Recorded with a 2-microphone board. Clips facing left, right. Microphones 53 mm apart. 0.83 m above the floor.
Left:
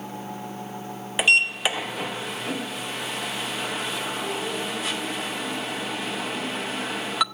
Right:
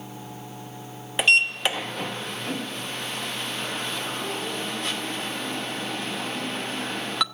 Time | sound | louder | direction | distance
1.2 | a sliding door | even | 5° left (ahead or behind) | 0.7 m